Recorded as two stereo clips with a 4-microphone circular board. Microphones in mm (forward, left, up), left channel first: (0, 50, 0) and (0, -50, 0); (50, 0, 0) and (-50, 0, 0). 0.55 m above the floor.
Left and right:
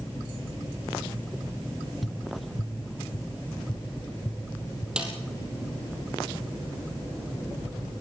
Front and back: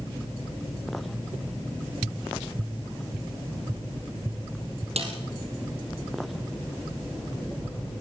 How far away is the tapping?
About 1.2 m.